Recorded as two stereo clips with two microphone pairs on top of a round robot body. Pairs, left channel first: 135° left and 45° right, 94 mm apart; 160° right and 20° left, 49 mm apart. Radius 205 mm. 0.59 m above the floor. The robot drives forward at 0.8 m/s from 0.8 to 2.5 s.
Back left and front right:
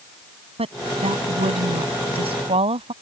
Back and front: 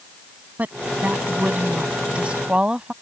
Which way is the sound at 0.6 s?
45° right.